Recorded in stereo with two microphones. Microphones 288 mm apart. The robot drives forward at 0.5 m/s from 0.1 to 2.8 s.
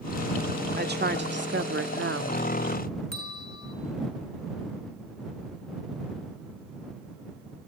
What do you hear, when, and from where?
0.8 s a woman speaking: 35° right (ahead or behind), 1.9 m; by 2.4 s 50° right (ahead or behind), 1.4 m
3.1 s a bell: 65° left (ahead or behind), 2.5 m